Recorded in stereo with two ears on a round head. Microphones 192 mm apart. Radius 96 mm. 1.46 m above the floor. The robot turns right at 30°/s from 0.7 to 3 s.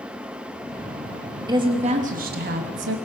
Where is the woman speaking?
160° right, 3 m; by 3.0 s 115° right, 3 m.